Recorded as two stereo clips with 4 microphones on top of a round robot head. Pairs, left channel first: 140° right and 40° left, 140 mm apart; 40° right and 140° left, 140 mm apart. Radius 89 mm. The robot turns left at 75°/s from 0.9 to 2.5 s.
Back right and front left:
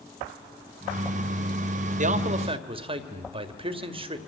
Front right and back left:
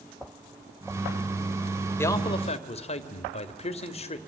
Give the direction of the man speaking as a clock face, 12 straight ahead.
11 o'clock.